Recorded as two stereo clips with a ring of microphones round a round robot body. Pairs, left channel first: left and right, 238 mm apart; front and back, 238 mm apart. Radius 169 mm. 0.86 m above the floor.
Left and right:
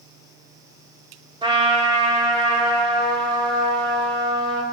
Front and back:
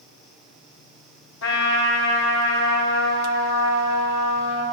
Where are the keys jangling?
I don't hear keys jangling.